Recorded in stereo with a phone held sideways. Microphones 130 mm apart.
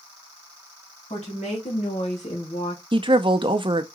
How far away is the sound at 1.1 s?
About 2 m.